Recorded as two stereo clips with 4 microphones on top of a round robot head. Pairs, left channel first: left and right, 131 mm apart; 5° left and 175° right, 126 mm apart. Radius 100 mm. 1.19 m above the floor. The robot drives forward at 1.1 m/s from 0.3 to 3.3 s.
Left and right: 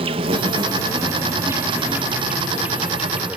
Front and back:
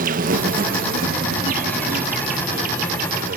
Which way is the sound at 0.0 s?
145° right.